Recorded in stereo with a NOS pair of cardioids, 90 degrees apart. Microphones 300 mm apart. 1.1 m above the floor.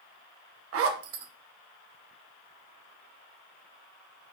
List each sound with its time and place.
0.7 s a zipper: 50° right, 0.6 m